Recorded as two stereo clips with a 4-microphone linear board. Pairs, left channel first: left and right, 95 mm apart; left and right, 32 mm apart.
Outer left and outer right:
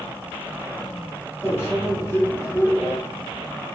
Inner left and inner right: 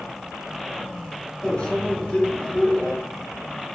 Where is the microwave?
25° left (ahead or behind), 1.0 m.